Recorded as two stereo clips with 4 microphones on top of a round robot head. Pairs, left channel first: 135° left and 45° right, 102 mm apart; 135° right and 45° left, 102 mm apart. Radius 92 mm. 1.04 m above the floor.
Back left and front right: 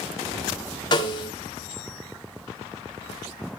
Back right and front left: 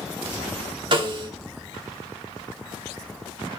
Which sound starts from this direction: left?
A snare drum, at 0.9 s.